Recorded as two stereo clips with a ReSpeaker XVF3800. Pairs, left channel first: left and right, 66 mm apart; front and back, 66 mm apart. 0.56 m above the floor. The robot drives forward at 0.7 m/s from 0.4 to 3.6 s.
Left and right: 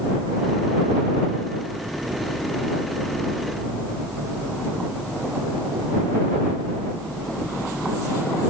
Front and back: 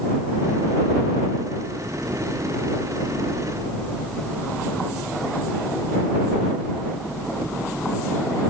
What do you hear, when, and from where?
Only background noise.